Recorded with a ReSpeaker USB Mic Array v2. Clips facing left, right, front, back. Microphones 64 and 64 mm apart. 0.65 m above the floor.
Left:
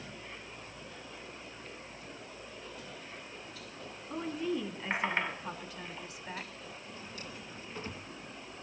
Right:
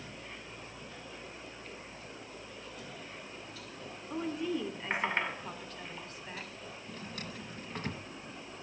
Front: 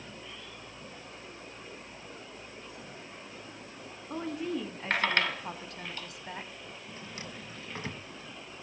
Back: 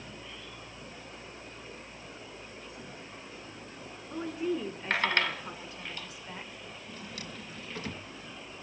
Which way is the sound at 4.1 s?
5° right.